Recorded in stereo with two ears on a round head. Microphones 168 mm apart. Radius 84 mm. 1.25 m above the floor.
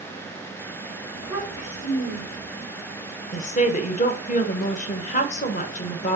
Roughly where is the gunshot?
I don't hear a gunshot.